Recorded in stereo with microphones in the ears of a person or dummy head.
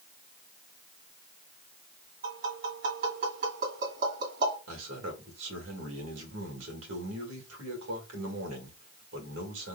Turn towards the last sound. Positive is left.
turn(degrees=-75)  # may be behind; listen again after turning